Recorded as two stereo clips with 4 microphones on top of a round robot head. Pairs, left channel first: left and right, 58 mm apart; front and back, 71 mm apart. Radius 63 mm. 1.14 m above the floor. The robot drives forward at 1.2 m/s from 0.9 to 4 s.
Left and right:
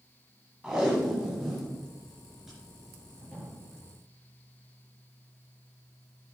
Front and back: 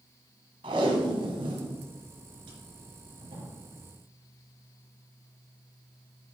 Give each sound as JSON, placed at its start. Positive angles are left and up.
{"t": 0.6, "sound": "tape being pulled", "azimuth_deg": -175, "distance_m": 1.7}